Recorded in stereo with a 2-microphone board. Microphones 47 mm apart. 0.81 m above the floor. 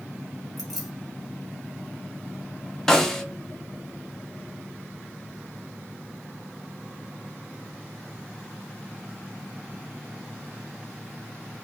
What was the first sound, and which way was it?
Keys jangling, centre (ahead or behind).